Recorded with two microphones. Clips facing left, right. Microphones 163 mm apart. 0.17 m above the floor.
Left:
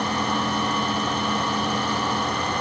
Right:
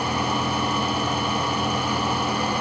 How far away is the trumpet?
I don't hear a trumpet.